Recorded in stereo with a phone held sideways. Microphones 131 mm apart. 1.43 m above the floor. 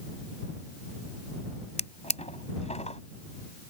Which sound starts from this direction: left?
A drawer, at 1.8 s.